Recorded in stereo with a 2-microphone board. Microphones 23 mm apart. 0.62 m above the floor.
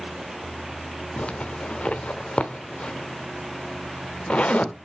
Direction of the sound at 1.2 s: 60° left (ahead or behind).